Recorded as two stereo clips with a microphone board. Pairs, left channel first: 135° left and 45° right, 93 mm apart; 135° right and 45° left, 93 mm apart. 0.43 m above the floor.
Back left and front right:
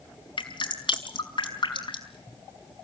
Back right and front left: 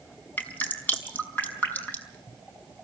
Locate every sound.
0.4 s dripping: 155° left, 4.5 m